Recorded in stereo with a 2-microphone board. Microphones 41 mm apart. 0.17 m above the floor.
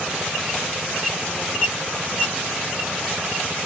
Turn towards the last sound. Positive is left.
No sound to turn to.